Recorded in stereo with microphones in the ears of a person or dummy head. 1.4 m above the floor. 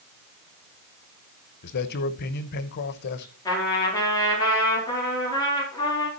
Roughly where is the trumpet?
Centre.